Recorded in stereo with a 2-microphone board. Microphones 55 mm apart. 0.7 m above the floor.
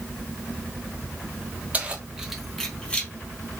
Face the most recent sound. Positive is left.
turn(degrees=25)  # may be behind; listen again after turning